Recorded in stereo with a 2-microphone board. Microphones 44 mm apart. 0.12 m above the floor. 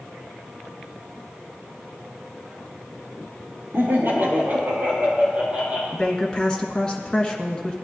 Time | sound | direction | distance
3.7 | laughter | 55° right (ahead or behind) | 3 m
5.9 | a woman speaking | 15° left (ahead or behind) | 1.4 m